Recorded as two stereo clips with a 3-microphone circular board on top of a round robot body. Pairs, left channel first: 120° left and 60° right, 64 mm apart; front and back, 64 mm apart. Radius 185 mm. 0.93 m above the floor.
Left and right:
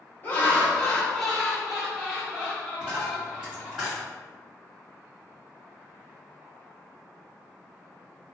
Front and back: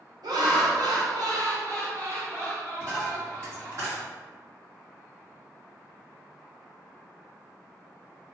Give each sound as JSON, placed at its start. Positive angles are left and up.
{"t": 0.2, "sound": "laughter", "azimuth_deg": 180, "distance_m": 1.1}
{"t": 2.8, "sound": "a dropped coin", "azimuth_deg": -140, "distance_m": 1.7}